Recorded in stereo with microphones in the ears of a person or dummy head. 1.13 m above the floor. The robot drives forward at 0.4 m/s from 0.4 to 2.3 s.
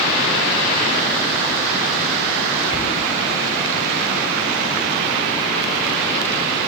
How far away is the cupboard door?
About 4 m.